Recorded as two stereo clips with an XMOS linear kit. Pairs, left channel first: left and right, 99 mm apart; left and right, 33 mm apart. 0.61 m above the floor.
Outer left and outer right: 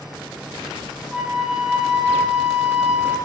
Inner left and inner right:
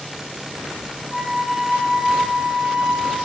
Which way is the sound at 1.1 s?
10° right (ahead or behind).